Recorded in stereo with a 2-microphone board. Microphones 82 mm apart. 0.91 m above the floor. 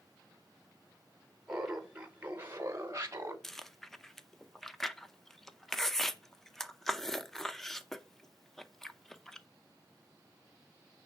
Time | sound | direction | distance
1.5 | laughter | 5° right (ahead or behind) | 1.1 m
3.4 | chewing | 5° left (ahead or behind) | 0.6 m